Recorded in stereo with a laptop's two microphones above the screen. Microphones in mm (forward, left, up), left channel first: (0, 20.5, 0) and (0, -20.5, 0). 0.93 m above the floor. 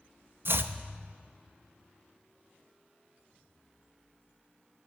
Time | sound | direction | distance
0.5 | chopping | 60° right (ahead or behind) | 0.7 m